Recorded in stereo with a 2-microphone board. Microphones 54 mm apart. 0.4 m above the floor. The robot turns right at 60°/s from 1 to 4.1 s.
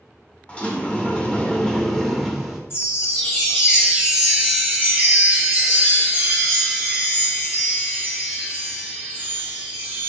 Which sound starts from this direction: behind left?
A chime, at 2.7 s.